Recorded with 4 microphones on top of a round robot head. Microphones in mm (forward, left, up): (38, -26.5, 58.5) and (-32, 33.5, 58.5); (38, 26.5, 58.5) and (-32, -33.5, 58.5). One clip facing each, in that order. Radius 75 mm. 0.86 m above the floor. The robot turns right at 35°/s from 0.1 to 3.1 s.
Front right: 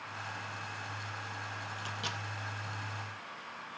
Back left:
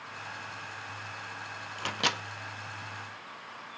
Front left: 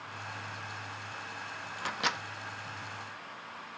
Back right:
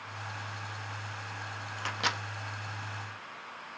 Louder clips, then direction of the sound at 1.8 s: Back left 11 dB, even; 120° left.